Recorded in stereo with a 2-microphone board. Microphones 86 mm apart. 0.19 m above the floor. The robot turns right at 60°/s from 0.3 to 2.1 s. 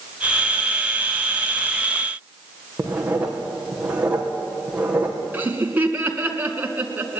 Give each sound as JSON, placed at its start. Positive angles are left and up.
{"t": 2.8, "sound": "writing", "side_deg": -15, "distance_m": 4.5}
{"t": 5.3, "sound": "laughter", "side_deg": -20, "distance_m": 2.5}